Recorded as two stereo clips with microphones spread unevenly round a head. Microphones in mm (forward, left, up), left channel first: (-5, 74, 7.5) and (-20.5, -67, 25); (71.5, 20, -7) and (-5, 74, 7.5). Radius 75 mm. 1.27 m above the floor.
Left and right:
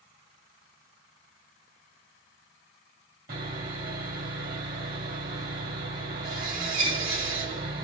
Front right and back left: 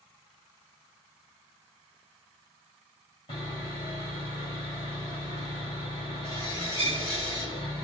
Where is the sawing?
90° right, 1.7 m.